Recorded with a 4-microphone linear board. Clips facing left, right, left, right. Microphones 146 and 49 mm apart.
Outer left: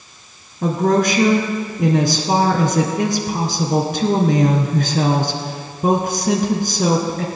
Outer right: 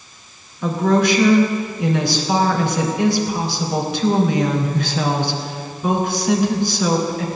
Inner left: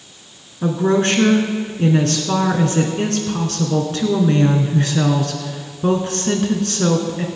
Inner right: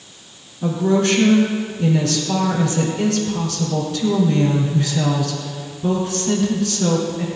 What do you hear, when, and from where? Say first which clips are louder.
0.6 s a woman speaking: outer left 1 dB, inner left 1 dB; 45° left (ahead or behind), 2.0 m